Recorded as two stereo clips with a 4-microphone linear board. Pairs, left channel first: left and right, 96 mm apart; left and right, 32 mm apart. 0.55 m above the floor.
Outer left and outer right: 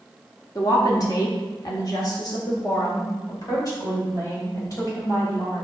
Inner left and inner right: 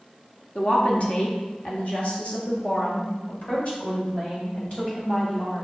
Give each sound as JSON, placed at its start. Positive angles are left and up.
{"t": 0.6, "sound": "a woman speaking", "side_deg": 40, "distance_m": 1.4}